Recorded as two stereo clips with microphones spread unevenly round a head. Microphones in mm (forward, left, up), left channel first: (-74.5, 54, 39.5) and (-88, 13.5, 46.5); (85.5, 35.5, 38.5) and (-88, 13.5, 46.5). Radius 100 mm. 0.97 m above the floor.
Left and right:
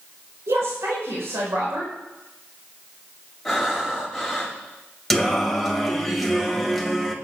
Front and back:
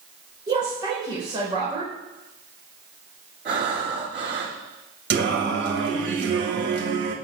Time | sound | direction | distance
0.5 | a woman speaking | 105° right | 4 m
3.5 | breathing | 165° left | 5 m
5.1 | singing | 165° left | 1.8 m